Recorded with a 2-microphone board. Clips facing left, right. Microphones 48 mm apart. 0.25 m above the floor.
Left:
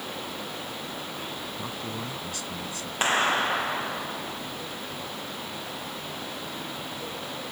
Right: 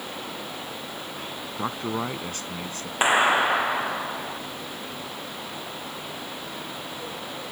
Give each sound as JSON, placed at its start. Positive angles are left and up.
{"t": 1.6, "sound": "a man speaking", "side_deg": -45}
{"t": 3.0, "sound": "a clap", "side_deg": -20}